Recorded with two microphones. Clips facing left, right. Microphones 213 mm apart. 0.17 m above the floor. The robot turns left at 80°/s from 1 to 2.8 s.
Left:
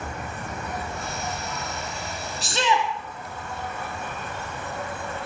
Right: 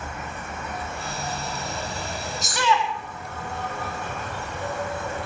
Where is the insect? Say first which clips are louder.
Left 1 dB; 35° left, 6 m; by 5.3 s 110° right, 6 m.